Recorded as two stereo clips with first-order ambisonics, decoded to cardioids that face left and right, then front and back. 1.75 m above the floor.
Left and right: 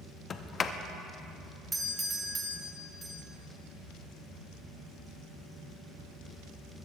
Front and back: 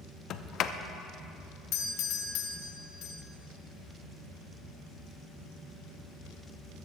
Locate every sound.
0.3 s a sliding door: 35° left, 0.6 m
1.7 s a doorbell: 15° right, 1.2 m